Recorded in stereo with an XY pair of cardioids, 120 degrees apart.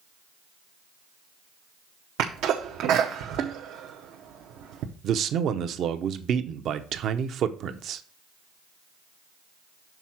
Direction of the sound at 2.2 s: 70° right.